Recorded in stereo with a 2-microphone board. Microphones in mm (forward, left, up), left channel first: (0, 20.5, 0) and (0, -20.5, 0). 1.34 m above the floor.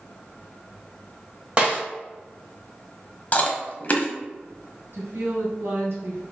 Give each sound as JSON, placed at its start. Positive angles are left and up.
{"t": 1.6, "sound": "a snare drum", "side_deg": -30, "distance_m": 1.8}
{"t": 3.3, "sound": "chewing", "side_deg": 35, "distance_m": 0.8}
{"t": 4.9, "sound": "a woman speaking", "side_deg": -70, "distance_m": 1.5}